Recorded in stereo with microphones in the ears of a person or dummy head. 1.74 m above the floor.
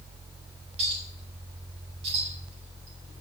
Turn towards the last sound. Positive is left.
turn(degrees=-40)  # may be behind; listen again after turning